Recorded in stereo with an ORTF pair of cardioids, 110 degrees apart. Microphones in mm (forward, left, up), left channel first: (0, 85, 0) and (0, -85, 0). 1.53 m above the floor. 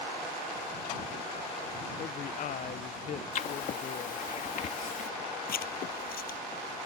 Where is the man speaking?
50° left.